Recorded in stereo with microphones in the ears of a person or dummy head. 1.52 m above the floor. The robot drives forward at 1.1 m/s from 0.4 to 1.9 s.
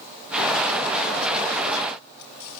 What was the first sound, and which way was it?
Only background noise.